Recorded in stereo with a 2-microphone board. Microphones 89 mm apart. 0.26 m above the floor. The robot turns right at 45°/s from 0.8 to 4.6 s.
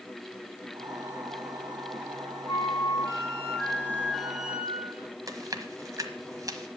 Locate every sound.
2.5 s a flute: 95° left, 2.5 m; by 5.1 s 170° right, 2.5 m
5.3 s chewing: 40° right (ahead or behind), 1.2 m